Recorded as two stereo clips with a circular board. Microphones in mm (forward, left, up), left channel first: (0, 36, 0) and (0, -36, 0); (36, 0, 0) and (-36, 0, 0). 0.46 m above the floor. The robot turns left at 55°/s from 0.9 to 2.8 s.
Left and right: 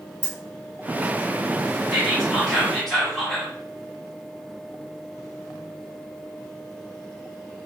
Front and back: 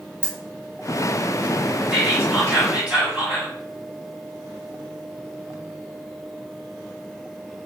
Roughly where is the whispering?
Behind right.